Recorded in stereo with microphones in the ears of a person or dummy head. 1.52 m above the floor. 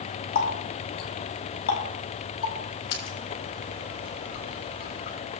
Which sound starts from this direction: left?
A running tap, at 0.3 s.